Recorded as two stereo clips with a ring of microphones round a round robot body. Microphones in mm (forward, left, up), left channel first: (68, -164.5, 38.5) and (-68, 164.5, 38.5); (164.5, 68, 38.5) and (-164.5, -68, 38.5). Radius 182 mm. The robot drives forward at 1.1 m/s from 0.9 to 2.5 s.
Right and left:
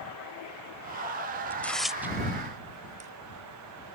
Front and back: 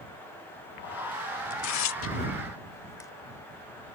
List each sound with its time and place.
1.5 s tearing paper: 15° left; by 3.1 s 90° left